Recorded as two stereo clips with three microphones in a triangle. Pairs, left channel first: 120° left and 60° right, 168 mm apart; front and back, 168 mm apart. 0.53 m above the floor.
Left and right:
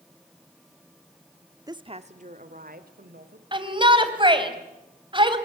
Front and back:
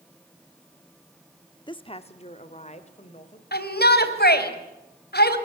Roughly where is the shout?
Ahead.